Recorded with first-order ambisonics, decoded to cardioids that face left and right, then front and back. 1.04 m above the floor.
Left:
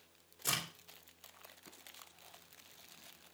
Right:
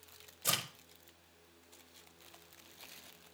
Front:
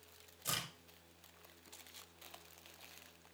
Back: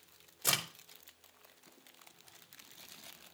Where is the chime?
I don't hear a chime.